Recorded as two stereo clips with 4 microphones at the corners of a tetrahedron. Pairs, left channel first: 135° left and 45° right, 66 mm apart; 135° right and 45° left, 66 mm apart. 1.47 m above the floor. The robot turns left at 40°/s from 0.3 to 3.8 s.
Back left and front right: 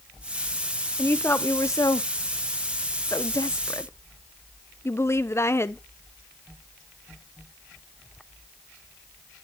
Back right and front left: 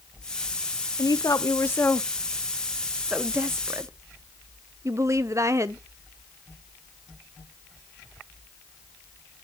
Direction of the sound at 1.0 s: 160° right.